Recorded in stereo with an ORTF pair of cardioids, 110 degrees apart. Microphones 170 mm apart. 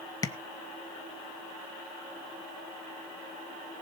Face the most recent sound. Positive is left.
turn(degrees=20)